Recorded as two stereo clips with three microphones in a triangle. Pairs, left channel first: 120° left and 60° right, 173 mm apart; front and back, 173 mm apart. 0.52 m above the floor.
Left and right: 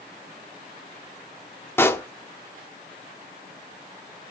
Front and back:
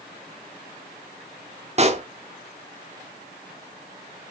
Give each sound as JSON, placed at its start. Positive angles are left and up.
{"t": 1.8, "sound": "a pop", "azimuth_deg": -170, "distance_m": 0.9}